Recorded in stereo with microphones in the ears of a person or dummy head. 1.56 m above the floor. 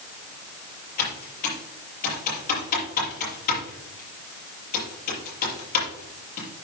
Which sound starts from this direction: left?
Typing on a keyboard, at 1.0 s.